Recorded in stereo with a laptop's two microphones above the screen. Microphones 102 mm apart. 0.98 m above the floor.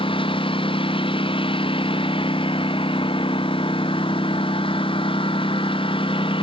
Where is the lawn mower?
60° left (ahead or behind).